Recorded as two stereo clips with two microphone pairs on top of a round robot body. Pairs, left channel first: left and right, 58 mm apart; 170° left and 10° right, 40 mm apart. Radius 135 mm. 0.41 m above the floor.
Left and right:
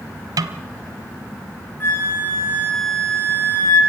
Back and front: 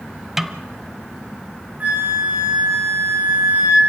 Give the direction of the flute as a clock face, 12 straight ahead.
11 o'clock.